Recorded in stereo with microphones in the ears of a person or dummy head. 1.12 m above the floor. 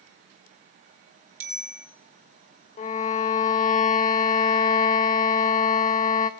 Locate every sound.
1.4 s a bicycle bell: 10° right (ahead or behind), 3.5 m
2.8 s a violin: 40° left (ahead or behind), 0.9 m